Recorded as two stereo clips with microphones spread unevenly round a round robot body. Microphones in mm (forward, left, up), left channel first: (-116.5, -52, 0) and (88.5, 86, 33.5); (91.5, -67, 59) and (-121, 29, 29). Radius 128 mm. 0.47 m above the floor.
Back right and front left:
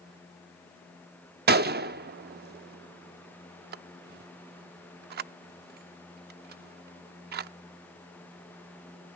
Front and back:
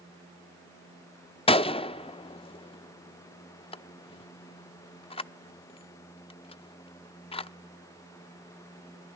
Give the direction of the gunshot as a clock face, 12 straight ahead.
11 o'clock.